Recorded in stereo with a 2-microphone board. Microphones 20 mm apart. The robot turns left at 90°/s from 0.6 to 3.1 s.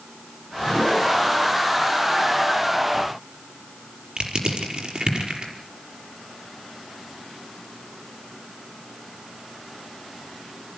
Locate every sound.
4.2 s crushing: 70° right (ahead or behind), 5.5 m